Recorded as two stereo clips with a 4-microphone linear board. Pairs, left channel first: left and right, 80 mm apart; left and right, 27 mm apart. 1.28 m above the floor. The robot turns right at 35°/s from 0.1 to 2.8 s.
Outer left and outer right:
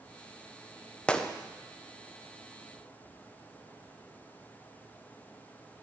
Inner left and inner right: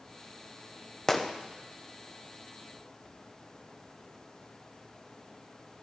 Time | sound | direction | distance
1.1 | a gunshot | 15° left (ahead or behind) | 0.8 m